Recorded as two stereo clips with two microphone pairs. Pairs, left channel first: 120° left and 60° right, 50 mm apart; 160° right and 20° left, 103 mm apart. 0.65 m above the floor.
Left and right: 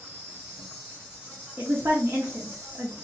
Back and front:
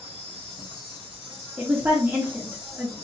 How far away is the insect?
About 3 m.